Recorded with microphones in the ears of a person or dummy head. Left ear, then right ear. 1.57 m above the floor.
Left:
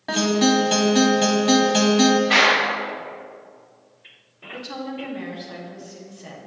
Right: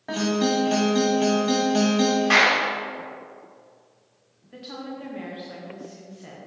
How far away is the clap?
About 3 m.